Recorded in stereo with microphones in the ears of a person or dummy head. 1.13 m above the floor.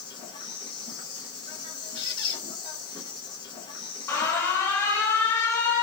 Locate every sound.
0.0 s an insect: 30° left (ahead or behind), 0.9 m
1.9 s a squeak: 25° left (ahead or behind), 2 m
4.1 s an alarm: 15° left (ahead or behind), 0.7 m